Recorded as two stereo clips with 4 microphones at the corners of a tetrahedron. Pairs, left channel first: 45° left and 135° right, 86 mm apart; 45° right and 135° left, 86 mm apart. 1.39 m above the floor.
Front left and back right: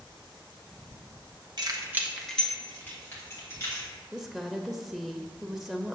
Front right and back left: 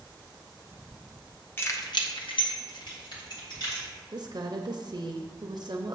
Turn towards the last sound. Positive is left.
turn(degrees=140)